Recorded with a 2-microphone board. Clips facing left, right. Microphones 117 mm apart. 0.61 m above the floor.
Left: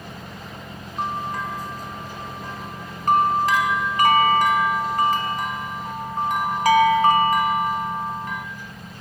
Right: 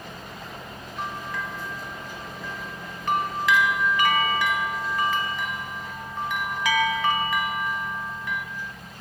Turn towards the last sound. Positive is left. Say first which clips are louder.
# left 6 dB
turn(degrees=40)  # may be behind; listen again after turning